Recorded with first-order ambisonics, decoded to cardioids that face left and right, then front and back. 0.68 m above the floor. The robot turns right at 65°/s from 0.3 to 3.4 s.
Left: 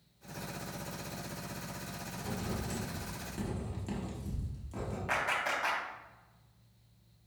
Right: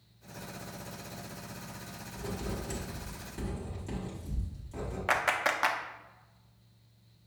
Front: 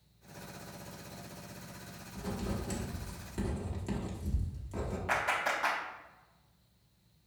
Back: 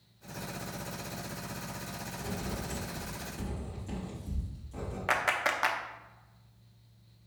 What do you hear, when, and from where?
2.1 s writing: 60° right, 1.2 m; by 5.0 s 20° left, 1.2 m
5.1 s a clap: 135° right, 0.6 m